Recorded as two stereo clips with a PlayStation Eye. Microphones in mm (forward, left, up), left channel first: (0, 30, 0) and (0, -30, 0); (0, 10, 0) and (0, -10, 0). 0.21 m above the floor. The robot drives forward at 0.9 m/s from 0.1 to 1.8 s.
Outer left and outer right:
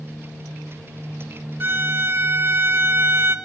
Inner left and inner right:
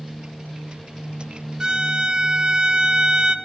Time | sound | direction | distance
1.6 | a violin | 35° right (ahead or behind) | 1.3 m